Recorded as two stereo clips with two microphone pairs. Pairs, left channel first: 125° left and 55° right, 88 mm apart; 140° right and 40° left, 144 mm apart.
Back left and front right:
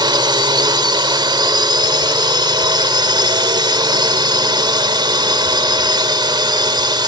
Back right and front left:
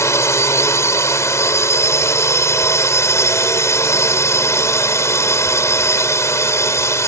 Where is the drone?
75° right.